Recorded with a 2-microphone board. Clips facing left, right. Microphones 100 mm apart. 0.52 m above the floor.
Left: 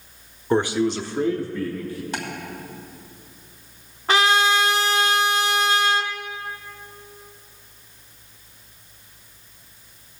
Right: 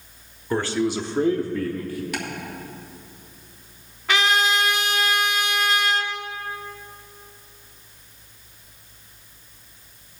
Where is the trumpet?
35° left (ahead or behind), 0.9 m.